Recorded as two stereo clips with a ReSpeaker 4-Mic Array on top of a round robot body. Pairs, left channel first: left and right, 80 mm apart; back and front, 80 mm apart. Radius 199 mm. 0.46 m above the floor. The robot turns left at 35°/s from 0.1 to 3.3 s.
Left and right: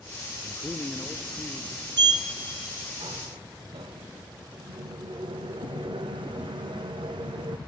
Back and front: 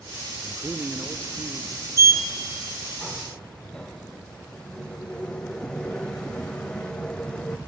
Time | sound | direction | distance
0.4 | a man speaking | 45° left | 1.1 m
2.0 | a sliding door | 55° right | 0.7 m